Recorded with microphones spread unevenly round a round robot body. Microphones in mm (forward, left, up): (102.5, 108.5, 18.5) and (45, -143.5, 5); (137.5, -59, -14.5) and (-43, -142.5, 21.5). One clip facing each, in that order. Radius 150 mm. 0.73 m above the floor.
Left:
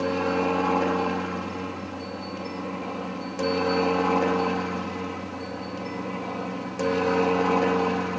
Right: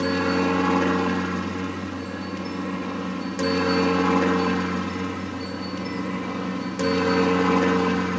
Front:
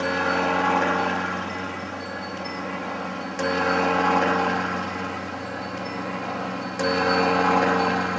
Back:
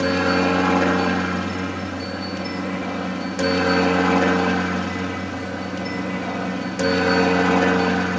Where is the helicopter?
145° right; by 8.2 s 120° right.